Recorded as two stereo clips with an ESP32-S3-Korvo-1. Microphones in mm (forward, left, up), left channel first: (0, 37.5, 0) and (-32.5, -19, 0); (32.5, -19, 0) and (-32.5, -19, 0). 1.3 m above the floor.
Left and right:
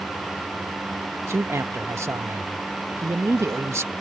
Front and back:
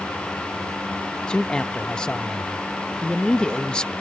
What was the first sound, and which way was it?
A man speaking, 75° right.